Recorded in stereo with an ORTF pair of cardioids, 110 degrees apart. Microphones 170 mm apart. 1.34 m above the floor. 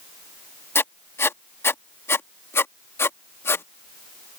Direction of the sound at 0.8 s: 15° left.